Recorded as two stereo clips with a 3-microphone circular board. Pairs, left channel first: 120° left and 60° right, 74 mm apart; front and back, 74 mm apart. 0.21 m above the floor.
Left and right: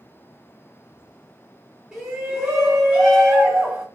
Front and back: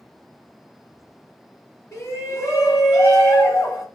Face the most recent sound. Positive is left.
turn(degrees=20)